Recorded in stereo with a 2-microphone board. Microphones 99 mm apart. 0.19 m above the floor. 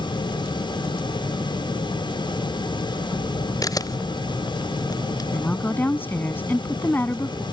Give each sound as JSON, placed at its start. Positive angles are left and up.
{"t": 3.6, "sound": "a camera shutter", "side_deg": 40}
{"t": 5.3, "sound": "a woman speaking", "side_deg": 20}